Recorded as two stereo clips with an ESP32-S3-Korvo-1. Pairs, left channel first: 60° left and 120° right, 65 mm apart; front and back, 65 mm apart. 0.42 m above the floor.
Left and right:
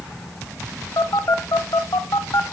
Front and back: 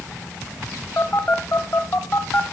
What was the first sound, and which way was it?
A phone buzzing, 50° left.